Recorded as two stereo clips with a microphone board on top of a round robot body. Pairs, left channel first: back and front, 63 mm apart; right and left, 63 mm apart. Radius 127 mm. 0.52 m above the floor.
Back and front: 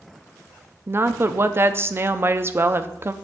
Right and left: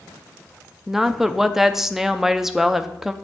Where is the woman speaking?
10° left, 0.7 m.